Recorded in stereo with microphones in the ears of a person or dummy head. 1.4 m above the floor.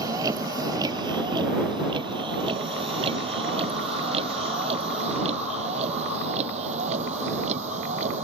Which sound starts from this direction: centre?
A vehicle, at 0.0 s.